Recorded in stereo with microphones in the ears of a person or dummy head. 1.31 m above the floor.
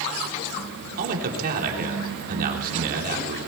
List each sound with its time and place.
1.0 s a man speaking: 50° right (ahead or behind), 3.5 m